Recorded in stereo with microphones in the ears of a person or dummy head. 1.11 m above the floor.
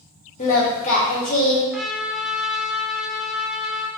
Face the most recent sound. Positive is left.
turn(degrees=5)  # may be behind; listen again after turning